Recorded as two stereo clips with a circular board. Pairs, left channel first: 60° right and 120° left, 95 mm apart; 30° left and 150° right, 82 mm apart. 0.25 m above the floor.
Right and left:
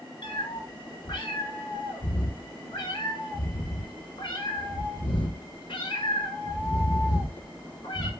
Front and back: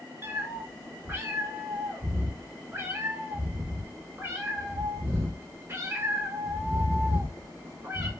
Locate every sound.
0.2 s a cat meowing: 90° right, 0.8 m